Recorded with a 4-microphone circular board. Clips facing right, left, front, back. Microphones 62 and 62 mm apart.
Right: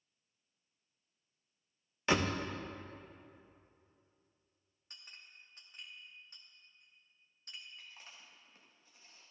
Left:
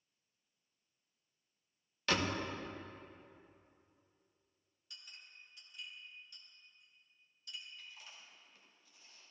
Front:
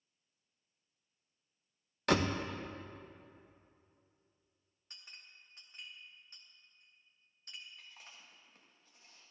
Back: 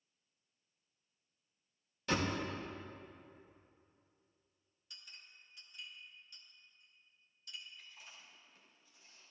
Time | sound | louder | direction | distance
2.1 | a door slam | right 3 dB, front 4 dB | 20° right | 0.6 m
4.9 | a clink | right 1 dB, front 1 dB | 50° right | 1.0 m
7.8 | chewing | even, front 1 dB | 35° right | 1.5 m